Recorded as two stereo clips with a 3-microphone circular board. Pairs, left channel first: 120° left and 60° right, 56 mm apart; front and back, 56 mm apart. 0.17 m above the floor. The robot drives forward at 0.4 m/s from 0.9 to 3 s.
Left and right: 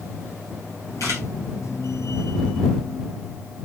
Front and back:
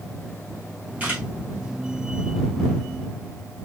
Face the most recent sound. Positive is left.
turn(degrees=125)